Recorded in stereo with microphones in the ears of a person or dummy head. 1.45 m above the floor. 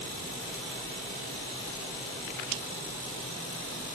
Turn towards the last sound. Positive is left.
No sound to turn to.